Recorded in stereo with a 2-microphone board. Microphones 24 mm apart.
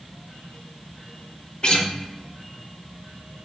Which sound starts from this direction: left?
A guitar, at 1.6 s.